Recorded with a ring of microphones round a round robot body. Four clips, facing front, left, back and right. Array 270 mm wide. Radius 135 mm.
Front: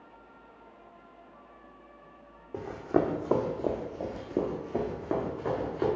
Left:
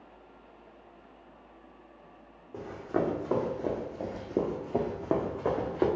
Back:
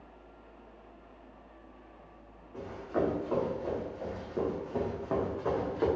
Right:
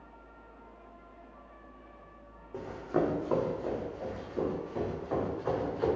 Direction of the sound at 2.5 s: 5° right.